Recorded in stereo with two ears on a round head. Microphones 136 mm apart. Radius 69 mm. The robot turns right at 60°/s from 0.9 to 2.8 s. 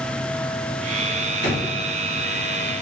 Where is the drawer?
75° right (ahead or behind), 1.6 m.